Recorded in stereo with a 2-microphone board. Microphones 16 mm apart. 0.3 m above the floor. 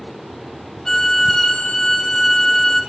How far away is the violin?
About 2.0 m.